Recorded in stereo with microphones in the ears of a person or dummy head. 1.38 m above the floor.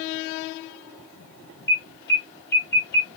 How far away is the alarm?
About 3 m.